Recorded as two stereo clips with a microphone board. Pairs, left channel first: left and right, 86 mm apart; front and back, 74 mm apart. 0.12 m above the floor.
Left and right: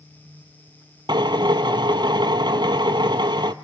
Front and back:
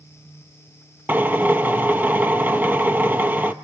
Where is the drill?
115° right, 1.2 m.